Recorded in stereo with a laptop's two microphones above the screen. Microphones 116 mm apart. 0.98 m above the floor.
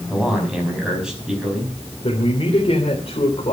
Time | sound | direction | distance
0.1 | a man speaking | 5° right (ahead or behind) | 6 m
2.0 | a man speaking | 55° left (ahead or behind) | 3 m